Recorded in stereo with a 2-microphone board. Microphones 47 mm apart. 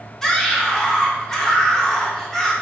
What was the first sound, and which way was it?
A scream, 10° left (ahead or behind).